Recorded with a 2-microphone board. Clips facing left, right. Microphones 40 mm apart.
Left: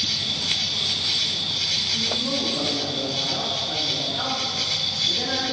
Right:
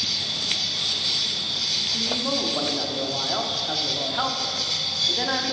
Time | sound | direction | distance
0.0 | an insect | 45° left (ahead or behind) | 0.9 m
1.9 | a man speaking | 55° right (ahead or behind) | 1.2 m